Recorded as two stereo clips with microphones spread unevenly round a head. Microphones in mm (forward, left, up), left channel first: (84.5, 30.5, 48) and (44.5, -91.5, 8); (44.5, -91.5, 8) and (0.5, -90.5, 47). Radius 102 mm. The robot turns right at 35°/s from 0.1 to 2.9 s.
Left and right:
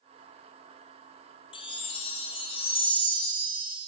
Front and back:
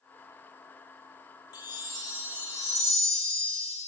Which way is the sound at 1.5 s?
60° left.